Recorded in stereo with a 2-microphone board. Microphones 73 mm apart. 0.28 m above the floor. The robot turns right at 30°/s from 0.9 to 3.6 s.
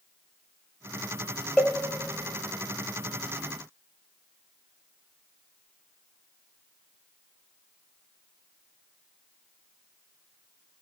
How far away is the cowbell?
About 1.0 m.